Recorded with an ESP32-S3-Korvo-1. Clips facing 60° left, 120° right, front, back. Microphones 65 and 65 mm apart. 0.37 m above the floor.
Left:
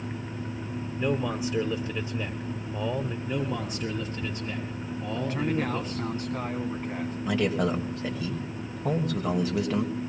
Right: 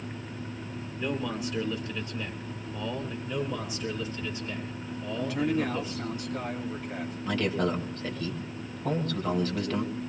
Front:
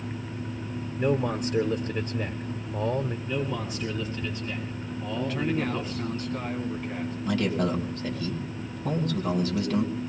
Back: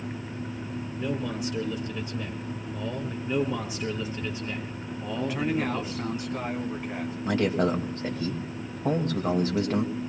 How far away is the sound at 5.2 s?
About 2.5 m.